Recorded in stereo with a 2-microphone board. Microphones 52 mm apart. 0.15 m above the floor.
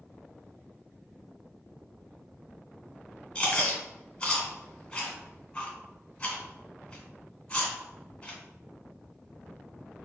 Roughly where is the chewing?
Centre.